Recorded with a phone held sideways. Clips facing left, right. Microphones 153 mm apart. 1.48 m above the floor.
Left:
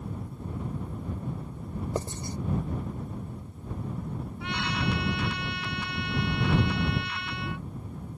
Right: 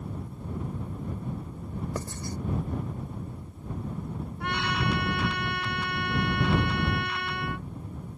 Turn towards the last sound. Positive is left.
turn(degrees=-55)  # may be behind; listen again after turning